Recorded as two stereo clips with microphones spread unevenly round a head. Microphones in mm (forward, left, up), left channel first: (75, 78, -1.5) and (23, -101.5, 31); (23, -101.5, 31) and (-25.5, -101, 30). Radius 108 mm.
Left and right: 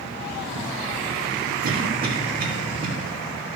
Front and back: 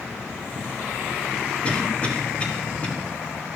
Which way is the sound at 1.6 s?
65° right.